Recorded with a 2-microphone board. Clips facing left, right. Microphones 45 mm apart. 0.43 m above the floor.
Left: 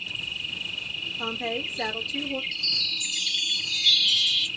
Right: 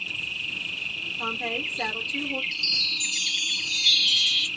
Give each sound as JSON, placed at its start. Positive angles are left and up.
{"t": 0.0, "sound": "an insect", "side_deg": -55, "distance_m": 1.2}
{"t": 1.2, "sound": "a woman speaking", "side_deg": 0, "distance_m": 1.0}
{"t": 2.5, "sound": "a chime", "side_deg": 5, "distance_m": 1.4}